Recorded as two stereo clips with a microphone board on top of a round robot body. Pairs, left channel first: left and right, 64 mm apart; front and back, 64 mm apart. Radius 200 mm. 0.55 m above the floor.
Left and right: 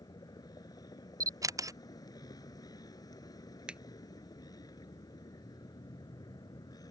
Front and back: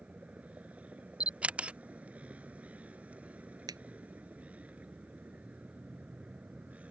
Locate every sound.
0.0 s a vehicle: 110° left
1.2 s a camera shutter: 110° right
3.7 s a finger snap: 165° right